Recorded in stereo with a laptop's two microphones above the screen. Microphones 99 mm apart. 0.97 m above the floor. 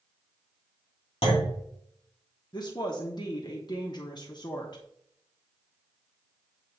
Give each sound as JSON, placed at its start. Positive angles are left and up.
{"t": 1.2, "sound": "a clunk", "side_deg": 70, "distance_m": 2.5}
{"t": 2.5, "sound": "a woman speaking", "side_deg": 45, "distance_m": 1.1}